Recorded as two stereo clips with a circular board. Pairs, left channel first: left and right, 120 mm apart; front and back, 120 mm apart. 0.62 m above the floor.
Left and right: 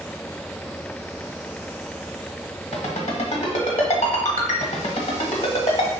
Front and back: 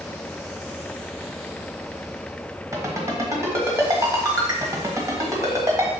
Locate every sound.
2.7 s a ringtone: 115° left, 1.3 m